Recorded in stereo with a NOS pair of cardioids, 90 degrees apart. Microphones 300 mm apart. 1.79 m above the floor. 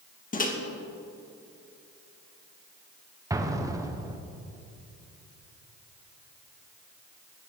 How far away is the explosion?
About 1.4 m.